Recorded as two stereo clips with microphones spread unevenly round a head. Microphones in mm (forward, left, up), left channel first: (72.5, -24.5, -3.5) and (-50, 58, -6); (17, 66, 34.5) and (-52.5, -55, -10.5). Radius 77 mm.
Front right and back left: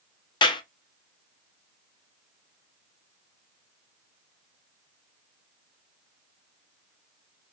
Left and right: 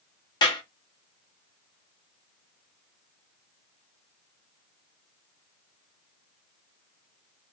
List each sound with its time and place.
0.4 s a clap: 20° left, 0.5 m